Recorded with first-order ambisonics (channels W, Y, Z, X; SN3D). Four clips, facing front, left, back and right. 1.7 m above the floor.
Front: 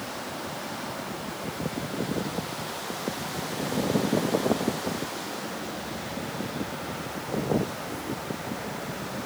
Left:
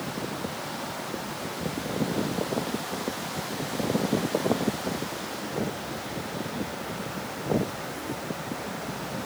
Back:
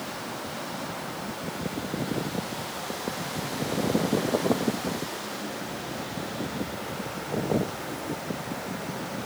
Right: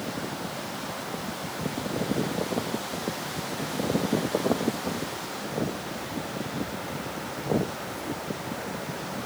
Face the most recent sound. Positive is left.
No sound to turn to.